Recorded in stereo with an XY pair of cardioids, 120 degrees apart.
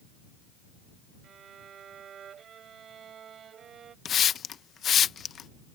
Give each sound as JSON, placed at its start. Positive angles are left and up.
{"t": 1.2, "sound": "a violin", "azimuth_deg": -50}
{"t": 4.0, "sound": "a hiss", "azimuth_deg": 45}